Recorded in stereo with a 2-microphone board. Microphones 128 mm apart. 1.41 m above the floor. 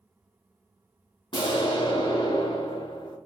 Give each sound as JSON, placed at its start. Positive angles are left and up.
{"t": 1.3, "sound": "an explosion", "side_deg": 40, "distance_m": 1.0}